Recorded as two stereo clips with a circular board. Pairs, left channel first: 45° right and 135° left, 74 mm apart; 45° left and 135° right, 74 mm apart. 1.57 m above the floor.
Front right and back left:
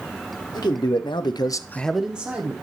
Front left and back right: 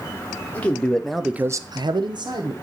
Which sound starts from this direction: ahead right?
A man speaking, at 0.5 s.